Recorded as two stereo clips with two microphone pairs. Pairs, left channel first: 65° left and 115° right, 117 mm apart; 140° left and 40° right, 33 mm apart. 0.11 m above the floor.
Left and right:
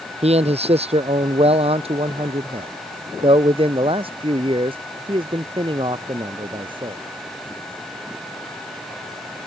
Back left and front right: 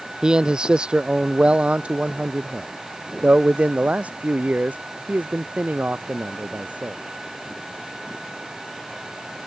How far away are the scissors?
No scissors in this recording.